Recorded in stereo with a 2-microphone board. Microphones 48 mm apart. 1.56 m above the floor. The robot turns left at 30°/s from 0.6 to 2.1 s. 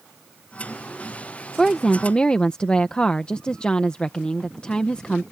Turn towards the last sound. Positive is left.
turn(degrees=20)  # may be behind; listen again after turning